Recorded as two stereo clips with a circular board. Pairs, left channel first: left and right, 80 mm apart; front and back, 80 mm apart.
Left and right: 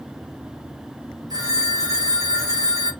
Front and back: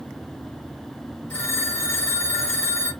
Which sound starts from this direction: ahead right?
A phone ringing, at 1.3 s.